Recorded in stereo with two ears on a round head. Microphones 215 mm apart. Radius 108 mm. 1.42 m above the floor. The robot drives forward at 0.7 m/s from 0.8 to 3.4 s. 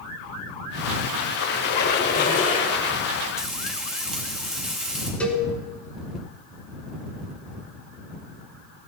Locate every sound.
1.4 s a squeak: 45° left (ahead or behind), 1.8 m; by 3.0 s 30° left (ahead or behind), 2.5 m
3.4 s frying: 5° right (ahead or behind), 3 m
5.2 s a cowbell: 5° left (ahead or behind), 2.5 m